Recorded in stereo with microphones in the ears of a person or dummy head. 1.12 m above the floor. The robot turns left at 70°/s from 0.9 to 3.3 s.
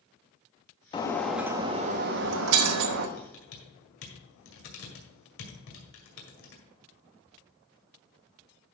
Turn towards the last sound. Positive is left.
turn(degrees=70)  # may be behind; listen again after turning